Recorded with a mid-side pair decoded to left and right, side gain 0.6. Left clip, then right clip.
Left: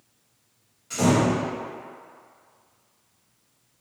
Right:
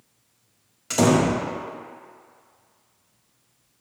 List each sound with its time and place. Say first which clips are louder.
0.9 s a door slam: right 2 dB; 60° right, 1.5 m